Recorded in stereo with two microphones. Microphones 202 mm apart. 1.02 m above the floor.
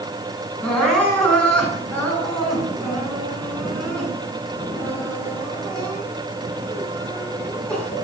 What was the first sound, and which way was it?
Crying, 5° left (ahead or behind).